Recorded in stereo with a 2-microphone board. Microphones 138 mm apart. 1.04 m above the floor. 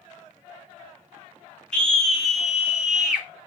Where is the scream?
5° left (ahead or behind), 1.3 m; by 3.3 s 5° right (ahead or behind), 2.0 m.